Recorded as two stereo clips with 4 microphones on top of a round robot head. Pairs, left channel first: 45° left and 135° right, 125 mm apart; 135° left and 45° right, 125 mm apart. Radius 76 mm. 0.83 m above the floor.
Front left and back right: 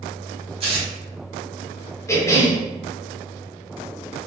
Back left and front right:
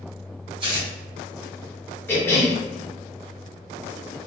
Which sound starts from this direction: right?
Tearing paper, at 0.6 s.